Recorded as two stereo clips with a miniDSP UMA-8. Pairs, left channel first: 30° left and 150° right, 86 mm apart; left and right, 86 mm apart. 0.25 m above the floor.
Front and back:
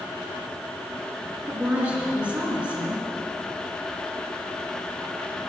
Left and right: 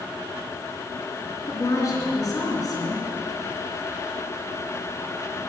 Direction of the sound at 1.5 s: 135° left.